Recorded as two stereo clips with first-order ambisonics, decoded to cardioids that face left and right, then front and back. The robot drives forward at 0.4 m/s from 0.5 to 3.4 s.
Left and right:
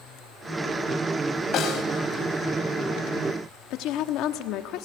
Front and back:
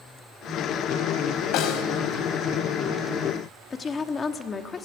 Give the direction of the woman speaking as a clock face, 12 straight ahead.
10 o'clock.